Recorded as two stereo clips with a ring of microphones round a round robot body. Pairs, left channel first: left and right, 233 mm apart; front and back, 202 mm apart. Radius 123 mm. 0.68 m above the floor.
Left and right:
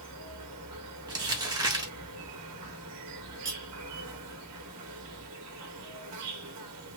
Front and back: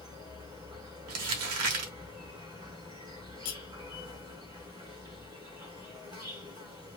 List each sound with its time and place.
0.0 s an insect: 105° right, 0.9 m
1.1 s crumpling: 165° right, 1.0 m
3.5 s cutlery clinking: 15° right, 0.9 m